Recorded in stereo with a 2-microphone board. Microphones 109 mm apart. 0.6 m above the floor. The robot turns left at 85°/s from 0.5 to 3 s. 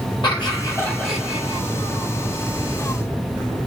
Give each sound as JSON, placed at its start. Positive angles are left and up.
{"t": 0.2, "sound": "laughter", "azimuth_deg": 60, "distance_m": 1.7}